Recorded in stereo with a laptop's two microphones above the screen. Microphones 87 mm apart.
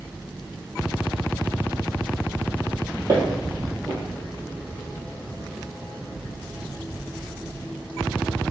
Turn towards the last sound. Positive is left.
turn(degrees=-50)  # may be behind; listen again after turning